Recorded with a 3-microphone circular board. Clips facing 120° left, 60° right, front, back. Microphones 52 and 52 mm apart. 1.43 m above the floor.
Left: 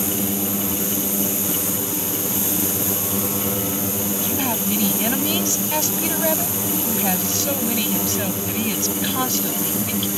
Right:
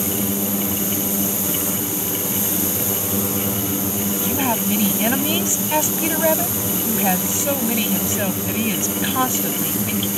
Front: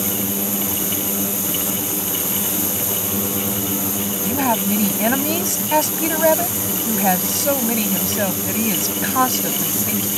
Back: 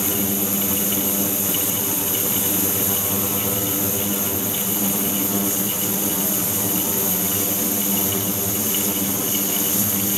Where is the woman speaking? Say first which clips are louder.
Right 4 dB, front 7 dB; 10° left.